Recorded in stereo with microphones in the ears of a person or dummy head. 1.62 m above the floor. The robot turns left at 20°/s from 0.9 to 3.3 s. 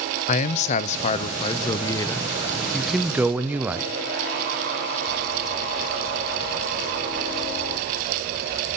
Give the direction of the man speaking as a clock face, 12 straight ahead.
11 o'clock.